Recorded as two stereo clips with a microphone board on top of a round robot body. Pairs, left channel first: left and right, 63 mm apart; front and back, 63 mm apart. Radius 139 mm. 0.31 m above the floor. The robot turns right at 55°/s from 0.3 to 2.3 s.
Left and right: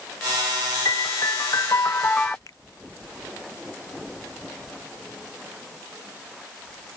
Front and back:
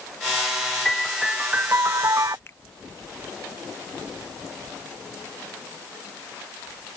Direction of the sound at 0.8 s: 80° left.